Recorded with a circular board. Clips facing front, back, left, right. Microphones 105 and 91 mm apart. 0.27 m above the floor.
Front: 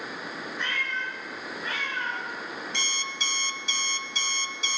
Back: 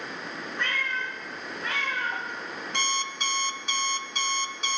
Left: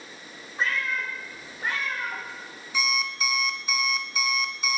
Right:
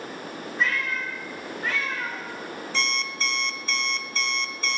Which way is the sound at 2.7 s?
170° left.